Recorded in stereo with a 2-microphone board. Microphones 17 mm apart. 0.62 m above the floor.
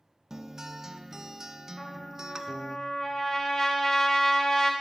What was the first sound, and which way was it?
A guitar, 30° right (ahead or behind).